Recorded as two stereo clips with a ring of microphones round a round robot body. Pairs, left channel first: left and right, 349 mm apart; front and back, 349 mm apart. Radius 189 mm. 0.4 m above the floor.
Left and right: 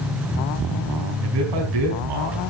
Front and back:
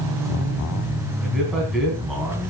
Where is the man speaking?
90° right, 3.5 m.